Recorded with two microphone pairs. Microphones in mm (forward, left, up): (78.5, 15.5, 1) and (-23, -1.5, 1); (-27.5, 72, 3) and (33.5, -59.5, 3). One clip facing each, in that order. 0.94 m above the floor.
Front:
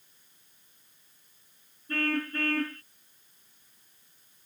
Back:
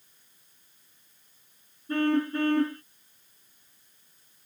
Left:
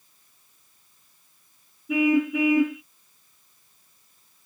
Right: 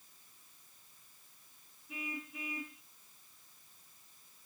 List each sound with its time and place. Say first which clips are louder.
1.9 s a car horn: back 6 dB, left 25 dB; 120° left